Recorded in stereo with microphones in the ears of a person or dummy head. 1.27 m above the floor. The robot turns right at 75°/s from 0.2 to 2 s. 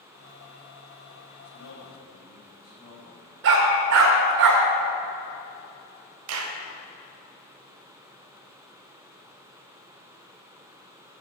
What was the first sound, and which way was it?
A man speaking, 85° left.